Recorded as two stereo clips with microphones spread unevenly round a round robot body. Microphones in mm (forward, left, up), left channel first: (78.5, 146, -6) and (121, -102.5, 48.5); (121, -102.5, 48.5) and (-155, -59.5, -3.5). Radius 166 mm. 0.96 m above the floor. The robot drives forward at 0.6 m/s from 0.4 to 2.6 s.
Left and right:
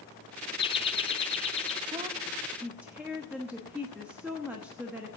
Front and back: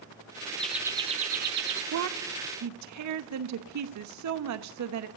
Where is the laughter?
90° left, 0.7 m; by 1.8 s 155° left, 1.0 m.